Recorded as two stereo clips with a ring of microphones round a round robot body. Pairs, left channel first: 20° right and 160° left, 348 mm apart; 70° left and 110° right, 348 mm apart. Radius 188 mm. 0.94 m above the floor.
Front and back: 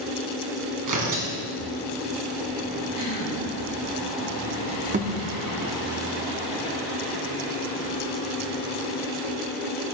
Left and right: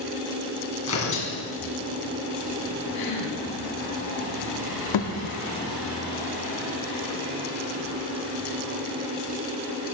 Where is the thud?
90° left, 0.9 m.